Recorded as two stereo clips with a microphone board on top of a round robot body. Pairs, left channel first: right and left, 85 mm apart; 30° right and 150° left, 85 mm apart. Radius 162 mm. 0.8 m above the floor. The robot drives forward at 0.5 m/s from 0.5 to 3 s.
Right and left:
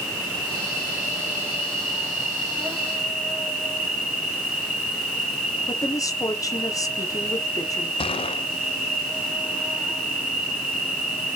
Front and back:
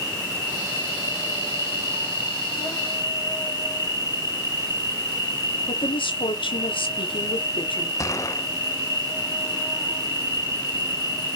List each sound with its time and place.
0.0 s an insect: 10° left, 4.5 m
5.7 s a woman speaking: 40° right, 1.9 m
8.0 s a gunshot: 85° right, 0.5 m